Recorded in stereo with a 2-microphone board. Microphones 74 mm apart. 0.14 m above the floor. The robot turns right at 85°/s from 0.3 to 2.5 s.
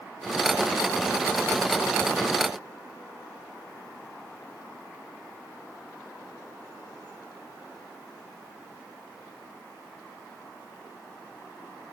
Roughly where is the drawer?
I don't hear a drawer.